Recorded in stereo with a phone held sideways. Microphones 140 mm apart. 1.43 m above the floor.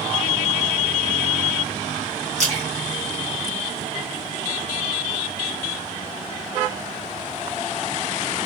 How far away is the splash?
About 1.9 m.